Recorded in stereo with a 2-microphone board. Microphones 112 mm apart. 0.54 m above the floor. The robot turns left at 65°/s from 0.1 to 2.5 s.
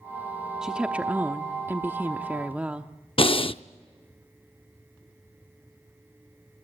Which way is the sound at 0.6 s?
5° right (ahead or behind).